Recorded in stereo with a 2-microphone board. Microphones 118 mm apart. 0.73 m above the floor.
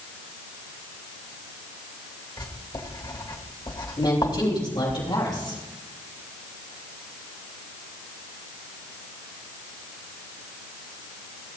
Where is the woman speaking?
35° left (ahead or behind), 5.5 m.